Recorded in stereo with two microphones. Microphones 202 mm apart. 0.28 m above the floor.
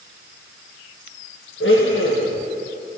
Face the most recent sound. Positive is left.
turn(degrees=75)  # may be behind; listen again after turning